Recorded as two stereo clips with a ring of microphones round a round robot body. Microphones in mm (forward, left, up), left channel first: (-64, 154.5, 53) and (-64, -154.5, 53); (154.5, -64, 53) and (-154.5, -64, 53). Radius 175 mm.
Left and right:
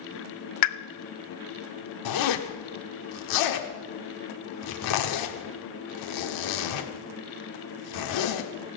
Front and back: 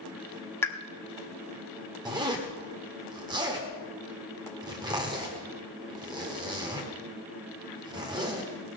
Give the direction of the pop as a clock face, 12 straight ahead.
9 o'clock.